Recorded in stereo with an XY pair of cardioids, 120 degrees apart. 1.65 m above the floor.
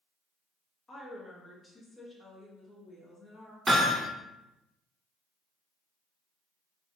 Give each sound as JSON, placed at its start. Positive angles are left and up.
{"t": 0.9, "sound": "a woman speaking", "azimuth_deg": 30, "distance_m": 1.2}
{"t": 3.7, "sound": "hammering", "azimuth_deg": -5, "distance_m": 1.7}